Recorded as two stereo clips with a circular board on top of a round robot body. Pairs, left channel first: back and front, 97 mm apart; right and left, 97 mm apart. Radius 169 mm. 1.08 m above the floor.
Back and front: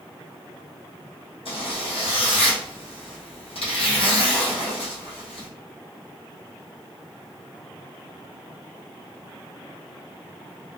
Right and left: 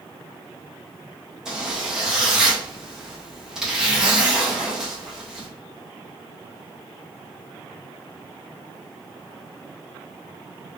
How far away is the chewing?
No chewing in this recording.